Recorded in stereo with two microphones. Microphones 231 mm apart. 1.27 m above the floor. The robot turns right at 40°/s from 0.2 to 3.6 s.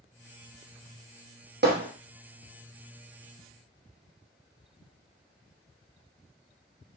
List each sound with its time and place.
1.6 s hammering: 45° right (ahead or behind), 0.8 m